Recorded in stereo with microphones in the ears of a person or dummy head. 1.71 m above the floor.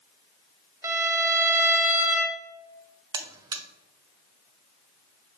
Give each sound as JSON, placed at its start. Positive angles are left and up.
{"t": 0.8, "sound": "a violin", "side_deg": -15, "distance_m": 0.6}
{"t": 3.1, "sound": "a buzzer", "side_deg": -25, "distance_m": 0.7}